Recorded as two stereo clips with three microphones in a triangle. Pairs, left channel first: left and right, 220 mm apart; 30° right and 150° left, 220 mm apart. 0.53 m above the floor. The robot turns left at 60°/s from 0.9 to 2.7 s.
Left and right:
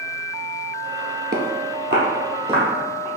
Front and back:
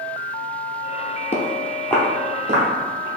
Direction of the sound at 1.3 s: 70° right.